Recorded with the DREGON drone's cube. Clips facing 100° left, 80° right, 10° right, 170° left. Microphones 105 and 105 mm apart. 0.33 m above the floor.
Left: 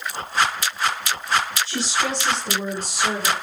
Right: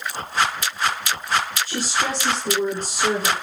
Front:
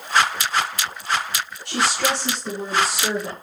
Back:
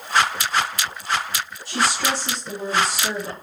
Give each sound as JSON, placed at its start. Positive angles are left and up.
{"t": 1.6, "sound": "a woman speaking", "azimuth_deg": -35, "distance_m": 4.0}